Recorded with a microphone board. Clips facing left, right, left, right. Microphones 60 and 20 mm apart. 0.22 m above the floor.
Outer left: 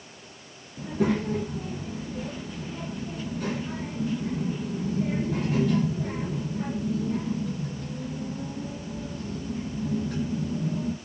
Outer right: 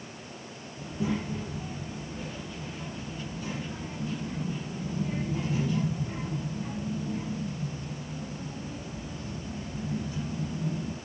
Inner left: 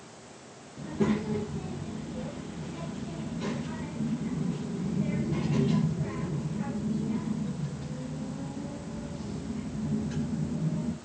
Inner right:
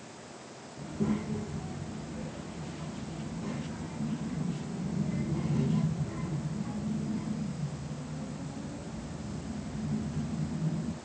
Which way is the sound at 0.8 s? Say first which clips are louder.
Outer left 6 dB, inner left 4 dB; 70° left (ahead or behind).